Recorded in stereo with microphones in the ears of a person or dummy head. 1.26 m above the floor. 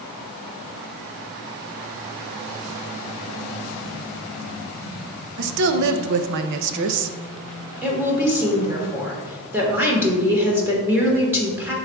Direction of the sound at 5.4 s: 60° right (ahead or behind).